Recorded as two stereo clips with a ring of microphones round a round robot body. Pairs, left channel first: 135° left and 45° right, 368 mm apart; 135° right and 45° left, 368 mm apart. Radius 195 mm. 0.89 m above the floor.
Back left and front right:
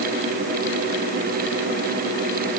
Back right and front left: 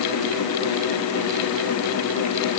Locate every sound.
Only background noise.